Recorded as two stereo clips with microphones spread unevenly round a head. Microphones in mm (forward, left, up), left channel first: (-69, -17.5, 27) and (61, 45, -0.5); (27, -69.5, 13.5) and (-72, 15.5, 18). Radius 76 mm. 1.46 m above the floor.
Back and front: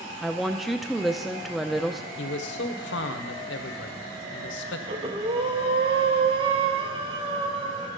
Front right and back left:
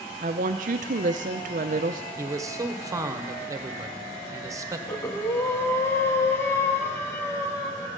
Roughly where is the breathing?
Ahead.